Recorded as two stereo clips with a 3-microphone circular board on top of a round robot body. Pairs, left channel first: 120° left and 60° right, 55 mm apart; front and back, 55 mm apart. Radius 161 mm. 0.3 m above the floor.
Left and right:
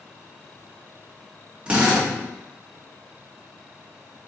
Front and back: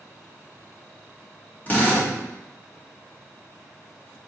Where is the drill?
15° right, 1.7 m.